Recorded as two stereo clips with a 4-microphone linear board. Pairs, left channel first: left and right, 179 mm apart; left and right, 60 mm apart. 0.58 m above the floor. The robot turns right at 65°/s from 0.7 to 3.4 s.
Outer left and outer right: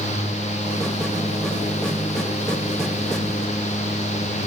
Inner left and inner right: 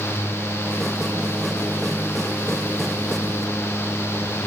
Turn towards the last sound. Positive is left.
No sound to turn to.